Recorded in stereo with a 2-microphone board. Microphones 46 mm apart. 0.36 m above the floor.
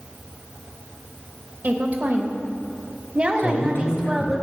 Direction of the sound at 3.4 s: 60° left (ahead or behind).